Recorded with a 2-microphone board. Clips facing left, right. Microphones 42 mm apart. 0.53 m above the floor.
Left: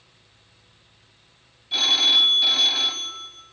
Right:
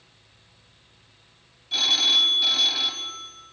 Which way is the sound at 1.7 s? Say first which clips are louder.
Left 2 dB; 10° left (ahead or behind).